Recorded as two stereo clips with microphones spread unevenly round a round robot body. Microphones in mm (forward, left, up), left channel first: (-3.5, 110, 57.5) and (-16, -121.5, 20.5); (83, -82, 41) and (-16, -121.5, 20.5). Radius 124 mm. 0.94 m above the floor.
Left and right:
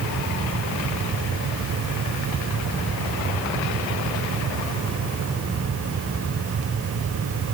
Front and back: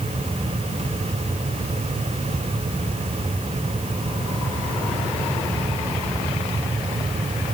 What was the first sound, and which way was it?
Only background noise.